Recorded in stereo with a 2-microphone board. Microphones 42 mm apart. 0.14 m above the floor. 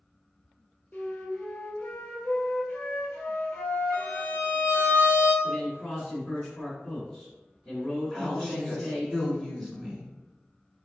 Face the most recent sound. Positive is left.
turn(degrees=10)  # may be behind; listen again after turning